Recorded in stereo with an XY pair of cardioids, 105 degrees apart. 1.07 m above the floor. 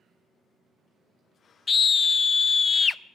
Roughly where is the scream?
Ahead left.